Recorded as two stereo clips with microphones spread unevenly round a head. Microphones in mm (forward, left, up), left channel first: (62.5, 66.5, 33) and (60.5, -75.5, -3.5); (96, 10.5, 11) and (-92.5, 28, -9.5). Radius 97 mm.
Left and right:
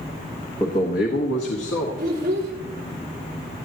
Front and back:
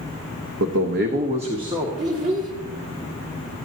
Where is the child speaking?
135° right, 3 m.